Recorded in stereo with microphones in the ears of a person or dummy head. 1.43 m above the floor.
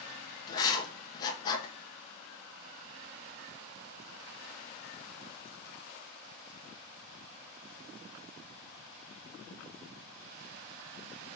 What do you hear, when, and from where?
0.5 s writing: 25° left (ahead or behind), 1.1 m